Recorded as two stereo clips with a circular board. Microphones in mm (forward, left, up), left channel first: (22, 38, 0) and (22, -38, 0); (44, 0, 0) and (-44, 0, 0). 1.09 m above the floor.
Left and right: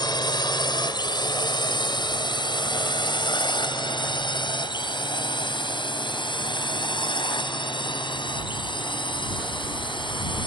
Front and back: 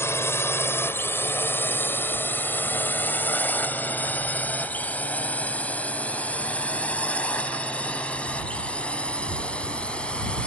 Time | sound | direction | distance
0.0 | a drone | 65° left | ?